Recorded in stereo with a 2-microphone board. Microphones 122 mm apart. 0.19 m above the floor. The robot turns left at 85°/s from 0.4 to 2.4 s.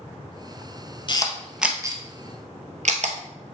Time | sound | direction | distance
1.1 | a camera shutter | 40° left (ahead or behind) | 1.0 m